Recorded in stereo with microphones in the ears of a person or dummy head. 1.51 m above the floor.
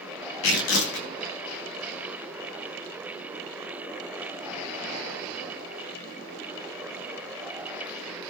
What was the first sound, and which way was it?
Tearing paper, 80° left.